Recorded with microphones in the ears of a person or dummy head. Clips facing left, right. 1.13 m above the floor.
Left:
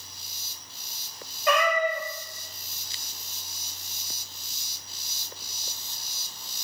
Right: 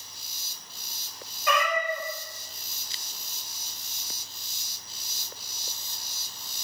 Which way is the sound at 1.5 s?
40° left (ahead or behind).